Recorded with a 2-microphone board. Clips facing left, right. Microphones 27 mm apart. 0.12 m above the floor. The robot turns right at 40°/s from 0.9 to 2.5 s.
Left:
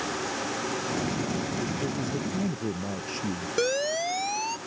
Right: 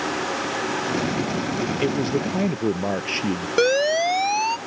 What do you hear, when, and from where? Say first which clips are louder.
1.8 s a man speaking: right 8 dB; 55° right (ahead or behind)
3.6 s a siren: right 8 dB; 30° right (ahead or behind)